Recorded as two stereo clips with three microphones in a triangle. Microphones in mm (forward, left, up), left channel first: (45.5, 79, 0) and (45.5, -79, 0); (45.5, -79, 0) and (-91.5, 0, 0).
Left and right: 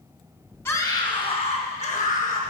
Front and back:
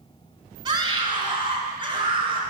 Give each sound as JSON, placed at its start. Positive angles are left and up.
{"t": 0.7, "sound": "a scream", "azimuth_deg": 145, "distance_m": 1.4}